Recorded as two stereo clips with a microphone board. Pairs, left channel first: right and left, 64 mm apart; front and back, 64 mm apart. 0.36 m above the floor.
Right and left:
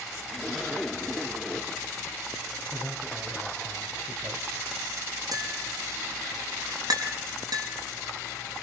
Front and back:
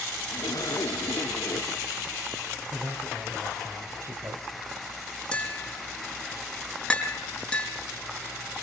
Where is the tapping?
80° left, 4.5 m.